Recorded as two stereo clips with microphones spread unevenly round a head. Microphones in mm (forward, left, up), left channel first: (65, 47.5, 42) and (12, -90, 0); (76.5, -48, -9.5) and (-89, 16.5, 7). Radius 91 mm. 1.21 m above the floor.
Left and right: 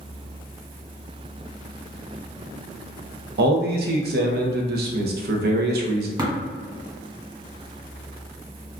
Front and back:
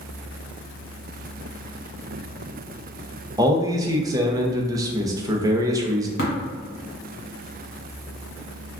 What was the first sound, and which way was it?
A man speaking, 130° right.